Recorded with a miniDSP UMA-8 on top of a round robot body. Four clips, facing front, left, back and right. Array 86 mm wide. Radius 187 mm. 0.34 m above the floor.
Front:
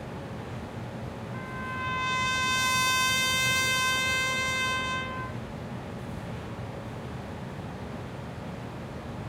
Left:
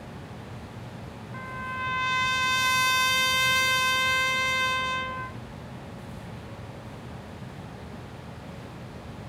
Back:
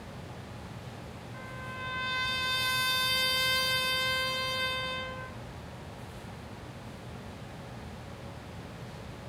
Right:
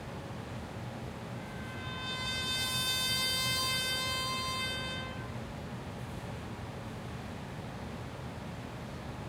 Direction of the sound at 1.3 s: 70° left.